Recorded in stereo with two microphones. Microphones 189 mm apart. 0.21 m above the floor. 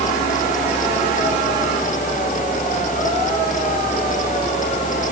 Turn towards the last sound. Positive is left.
No sound to turn to.